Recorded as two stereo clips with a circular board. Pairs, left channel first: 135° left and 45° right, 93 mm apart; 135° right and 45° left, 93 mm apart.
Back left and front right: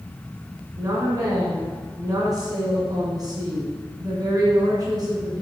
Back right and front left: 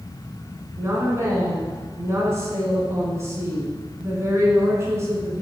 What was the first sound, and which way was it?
A woman speaking, 10° right.